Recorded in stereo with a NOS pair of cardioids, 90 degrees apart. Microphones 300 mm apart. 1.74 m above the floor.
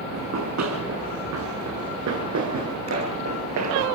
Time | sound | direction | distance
0.1 | running footsteps | 65° right | 7 m